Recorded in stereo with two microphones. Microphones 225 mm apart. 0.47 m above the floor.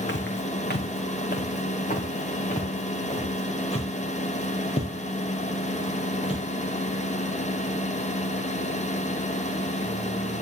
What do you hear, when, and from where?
0.1 s footsteps: 55° left (ahead or behind), 1.7 m; by 6.4 s 25° left (ahead or behind), 6 m